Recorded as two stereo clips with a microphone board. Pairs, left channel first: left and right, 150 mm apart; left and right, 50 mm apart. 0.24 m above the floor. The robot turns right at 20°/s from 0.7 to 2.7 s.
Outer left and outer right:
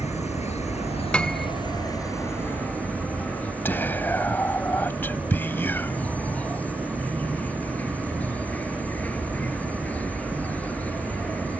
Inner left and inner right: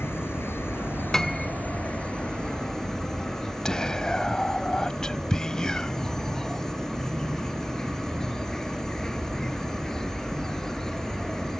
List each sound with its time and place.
0.0 s an insect: 130° left; by 11.6 s 170° left
1.1 s a piano: 5° left (ahead or behind); by 1.5 s centre (ahead or behind)
3.6 s whispering: 15° left (ahead or behind)